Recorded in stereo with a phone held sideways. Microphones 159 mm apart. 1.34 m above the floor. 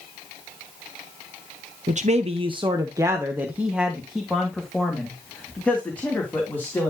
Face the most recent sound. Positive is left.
turn(degrees=15)  # may be behind; listen again after turning